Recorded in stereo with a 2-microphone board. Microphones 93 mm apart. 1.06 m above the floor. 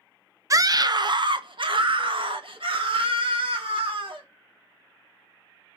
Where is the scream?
40° right (ahead or behind), 0.5 m; by 4.2 s 80° right, 2.5 m.